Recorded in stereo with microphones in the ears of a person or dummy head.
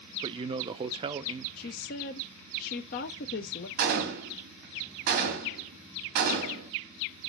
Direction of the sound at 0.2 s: 30° right (ahead or behind).